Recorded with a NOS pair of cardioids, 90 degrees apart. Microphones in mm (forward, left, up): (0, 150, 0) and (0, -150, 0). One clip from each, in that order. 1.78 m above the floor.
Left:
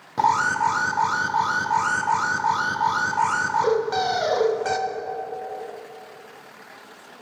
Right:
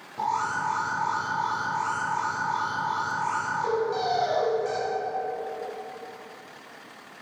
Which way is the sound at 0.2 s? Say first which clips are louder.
Left 7 dB; 55° left.